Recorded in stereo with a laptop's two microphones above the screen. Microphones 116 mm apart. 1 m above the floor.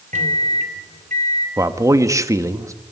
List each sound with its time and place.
0.1 s a microwave: 85° right, 2.5 m
1.6 s a man speaking: 25° right (ahead or behind), 1.7 m